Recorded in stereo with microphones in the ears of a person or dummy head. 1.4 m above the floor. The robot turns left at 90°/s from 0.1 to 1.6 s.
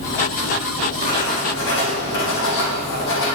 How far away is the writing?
About 1.8 m.